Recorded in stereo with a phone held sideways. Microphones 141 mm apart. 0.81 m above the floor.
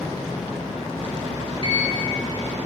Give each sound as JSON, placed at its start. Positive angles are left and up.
{"t": 1.6, "sound": "a sliding door", "side_deg": -45, "distance_m": 1.7}